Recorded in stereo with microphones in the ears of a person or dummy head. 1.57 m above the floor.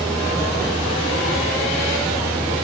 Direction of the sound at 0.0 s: Centre (ahead or behind).